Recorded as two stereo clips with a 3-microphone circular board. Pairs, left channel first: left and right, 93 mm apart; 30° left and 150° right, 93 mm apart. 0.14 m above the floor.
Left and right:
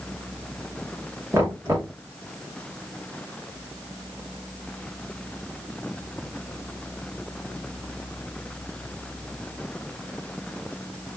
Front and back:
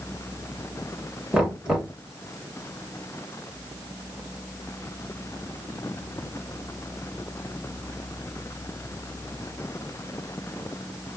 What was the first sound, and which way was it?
Knocking, 75° right.